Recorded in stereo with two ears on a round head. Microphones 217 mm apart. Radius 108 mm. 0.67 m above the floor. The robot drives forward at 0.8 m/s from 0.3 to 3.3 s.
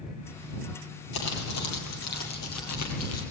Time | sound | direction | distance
1.1 | crumpling | 85° left | 5 m